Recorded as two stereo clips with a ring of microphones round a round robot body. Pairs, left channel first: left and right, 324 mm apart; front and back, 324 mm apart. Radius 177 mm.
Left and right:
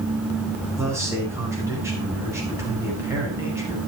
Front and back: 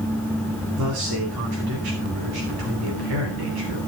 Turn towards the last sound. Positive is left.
turn(degrees=-170)